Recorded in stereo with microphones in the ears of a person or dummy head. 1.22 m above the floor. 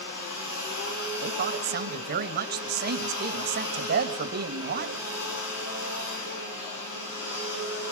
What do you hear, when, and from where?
0.0 s a machine running: 65° left (ahead or behind), 6.5 m
1.2 s a woman speaking: 50° right (ahead or behind), 1.9 m